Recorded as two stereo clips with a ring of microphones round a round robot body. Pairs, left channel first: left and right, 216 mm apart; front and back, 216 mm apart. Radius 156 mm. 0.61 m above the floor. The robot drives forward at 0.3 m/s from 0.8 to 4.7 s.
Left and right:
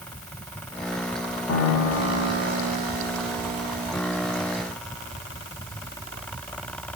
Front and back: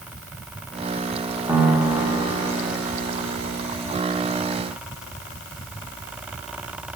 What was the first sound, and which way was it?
A piano, 100° left.